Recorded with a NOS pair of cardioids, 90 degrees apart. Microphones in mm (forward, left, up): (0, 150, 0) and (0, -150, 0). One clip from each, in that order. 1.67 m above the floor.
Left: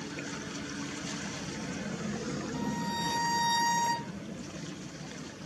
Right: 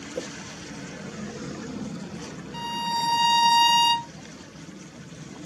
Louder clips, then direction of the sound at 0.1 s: Right 10 dB; 60° right.